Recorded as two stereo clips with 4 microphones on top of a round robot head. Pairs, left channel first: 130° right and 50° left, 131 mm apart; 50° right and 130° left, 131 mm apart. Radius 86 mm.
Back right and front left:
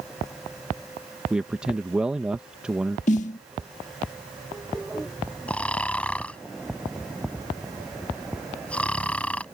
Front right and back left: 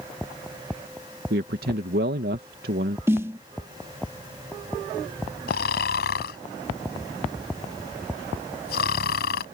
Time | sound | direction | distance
1.3 | a man speaking | 135° left | ?
3.1 | a snare drum | 160° right | ?
5.5 | snoring | 50° right | ?